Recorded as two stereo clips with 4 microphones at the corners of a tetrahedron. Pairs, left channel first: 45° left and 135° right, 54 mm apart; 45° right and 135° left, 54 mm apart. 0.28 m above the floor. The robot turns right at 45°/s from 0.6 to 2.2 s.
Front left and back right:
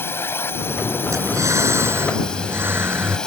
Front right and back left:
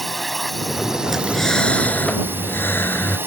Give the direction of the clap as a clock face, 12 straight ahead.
I don't hear a clap.